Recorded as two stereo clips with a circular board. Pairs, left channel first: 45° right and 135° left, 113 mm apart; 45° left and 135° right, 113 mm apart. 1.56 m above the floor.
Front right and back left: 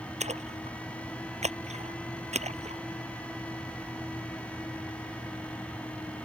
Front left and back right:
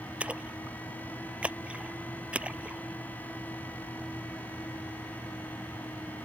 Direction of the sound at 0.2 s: 145° left.